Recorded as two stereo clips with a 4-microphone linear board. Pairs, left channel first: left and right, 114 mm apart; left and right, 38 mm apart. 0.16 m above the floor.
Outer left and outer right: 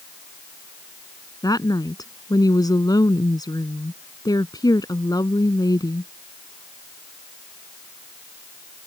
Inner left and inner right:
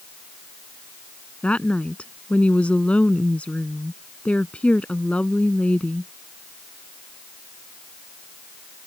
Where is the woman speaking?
35° left (ahead or behind).